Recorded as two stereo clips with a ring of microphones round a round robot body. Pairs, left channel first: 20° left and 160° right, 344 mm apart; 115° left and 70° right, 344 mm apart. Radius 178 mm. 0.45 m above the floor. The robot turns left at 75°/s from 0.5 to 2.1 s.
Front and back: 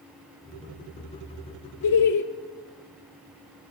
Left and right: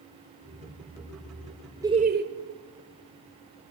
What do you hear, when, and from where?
1.8 s laughter: 15° left, 1.5 m; by 2.2 s 10° right, 1.5 m